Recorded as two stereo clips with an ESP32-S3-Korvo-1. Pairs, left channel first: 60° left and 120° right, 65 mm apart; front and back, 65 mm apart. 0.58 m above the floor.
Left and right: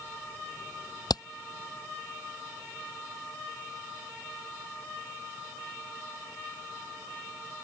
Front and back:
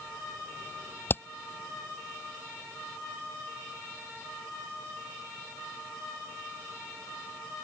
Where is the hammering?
55° left.